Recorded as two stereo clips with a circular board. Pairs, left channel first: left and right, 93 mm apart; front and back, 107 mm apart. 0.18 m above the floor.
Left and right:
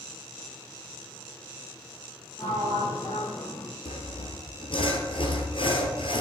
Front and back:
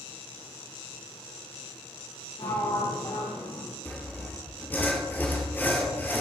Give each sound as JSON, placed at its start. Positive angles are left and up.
{"t": 2.4, "sound": "a sliding door", "azimuth_deg": 30, "distance_m": 3.5}
{"t": 3.9, "sound": "sawing", "azimuth_deg": 70, "distance_m": 1.6}